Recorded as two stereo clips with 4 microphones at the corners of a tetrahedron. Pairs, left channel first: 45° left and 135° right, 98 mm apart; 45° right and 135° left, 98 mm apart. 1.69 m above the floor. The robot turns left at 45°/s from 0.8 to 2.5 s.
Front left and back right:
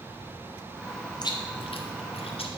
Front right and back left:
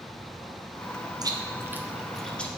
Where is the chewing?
90° left, 0.6 m; by 2.5 s 30° left, 0.6 m.